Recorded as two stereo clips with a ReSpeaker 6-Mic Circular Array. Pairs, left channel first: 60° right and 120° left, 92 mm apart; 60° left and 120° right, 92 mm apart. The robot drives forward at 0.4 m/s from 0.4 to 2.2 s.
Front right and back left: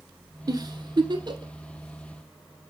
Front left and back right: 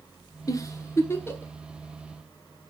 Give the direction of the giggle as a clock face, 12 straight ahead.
9 o'clock.